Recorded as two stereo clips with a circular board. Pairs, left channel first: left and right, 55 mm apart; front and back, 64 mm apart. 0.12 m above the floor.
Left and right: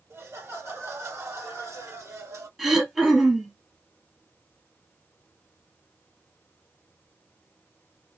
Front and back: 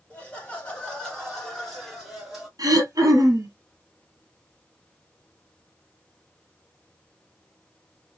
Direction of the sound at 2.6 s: 175° right.